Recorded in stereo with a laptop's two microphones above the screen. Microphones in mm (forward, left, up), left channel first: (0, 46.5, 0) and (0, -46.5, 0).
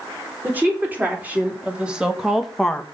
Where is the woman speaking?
20° right (ahead or behind), 4 m; by 2.8 s 10° left (ahead or behind), 1.0 m.